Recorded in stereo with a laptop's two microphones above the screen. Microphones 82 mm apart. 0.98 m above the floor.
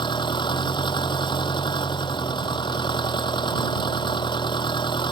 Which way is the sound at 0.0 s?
80° left.